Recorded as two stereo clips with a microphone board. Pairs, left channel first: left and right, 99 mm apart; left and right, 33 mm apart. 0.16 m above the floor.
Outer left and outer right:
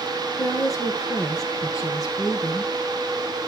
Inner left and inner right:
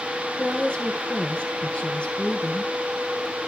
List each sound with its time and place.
0.4 s a woman speaking: 35° left (ahead or behind), 3.5 m